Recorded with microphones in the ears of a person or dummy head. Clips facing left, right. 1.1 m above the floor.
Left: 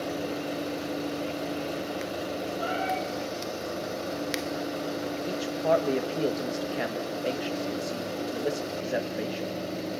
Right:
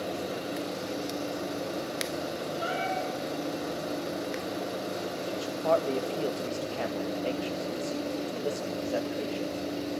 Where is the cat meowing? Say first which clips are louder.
Left 1 dB; 30° right (ahead or behind), 9.5 m.